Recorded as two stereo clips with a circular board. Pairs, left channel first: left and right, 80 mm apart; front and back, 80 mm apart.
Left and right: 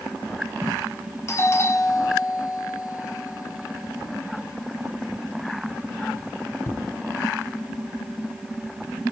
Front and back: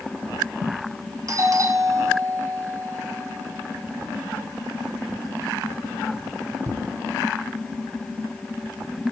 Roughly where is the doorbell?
Behind left.